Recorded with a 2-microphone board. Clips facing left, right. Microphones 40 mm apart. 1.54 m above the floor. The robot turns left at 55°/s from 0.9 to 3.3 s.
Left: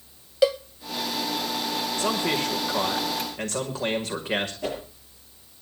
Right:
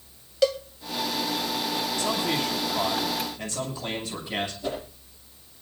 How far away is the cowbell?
About 0.7 m.